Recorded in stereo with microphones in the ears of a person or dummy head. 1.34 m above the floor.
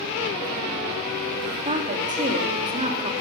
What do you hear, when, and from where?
1.6 s a woman speaking: 35° right (ahead or behind), 3 m